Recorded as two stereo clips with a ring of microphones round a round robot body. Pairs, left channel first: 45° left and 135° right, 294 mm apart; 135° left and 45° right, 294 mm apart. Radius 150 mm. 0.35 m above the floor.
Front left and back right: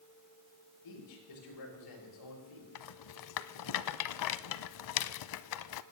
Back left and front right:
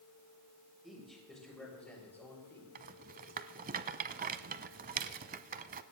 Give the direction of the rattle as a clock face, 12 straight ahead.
11 o'clock.